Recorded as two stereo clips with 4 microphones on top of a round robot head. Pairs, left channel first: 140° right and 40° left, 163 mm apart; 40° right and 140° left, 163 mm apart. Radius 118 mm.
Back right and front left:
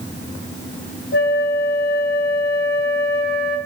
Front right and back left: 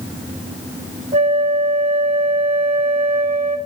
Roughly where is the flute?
Behind.